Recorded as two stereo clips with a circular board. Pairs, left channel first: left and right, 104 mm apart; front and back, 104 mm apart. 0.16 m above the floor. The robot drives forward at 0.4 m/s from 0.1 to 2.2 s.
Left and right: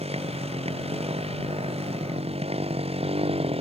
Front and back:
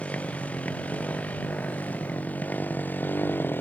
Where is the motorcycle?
80° right; by 3.6 s 70° right.